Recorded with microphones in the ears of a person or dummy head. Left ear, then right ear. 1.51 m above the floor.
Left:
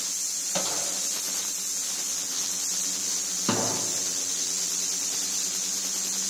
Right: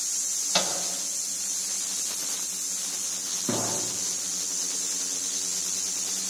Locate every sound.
0.5 s a microwave: 40° right (ahead or behind), 6.5 m
3.5 s a thud: 65° left (ahead or behind), 8 m